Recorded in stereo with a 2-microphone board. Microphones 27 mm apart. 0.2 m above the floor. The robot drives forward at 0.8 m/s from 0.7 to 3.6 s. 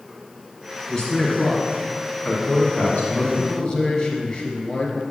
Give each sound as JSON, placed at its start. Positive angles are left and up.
{"t": 0.9, "sound": "a man speaking", "side_deg": 25, "distance_m": 2.5}
{"t": 3.4, "sound": "a man speaking", "side_deg": 30, "distance_m": 1.6}